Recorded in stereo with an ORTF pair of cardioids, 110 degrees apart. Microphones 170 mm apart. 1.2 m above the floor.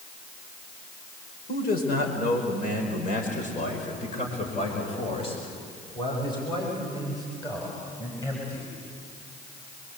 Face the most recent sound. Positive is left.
turn(degrees=15)